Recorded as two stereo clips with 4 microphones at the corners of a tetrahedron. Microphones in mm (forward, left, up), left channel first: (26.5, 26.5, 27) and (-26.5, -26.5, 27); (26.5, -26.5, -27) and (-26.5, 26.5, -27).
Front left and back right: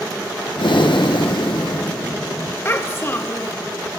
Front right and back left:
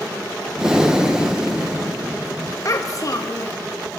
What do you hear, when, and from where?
0.6 s breathing: 55° left, 0.8 m
2.6 s a child speaking: 10° right, 0.9 m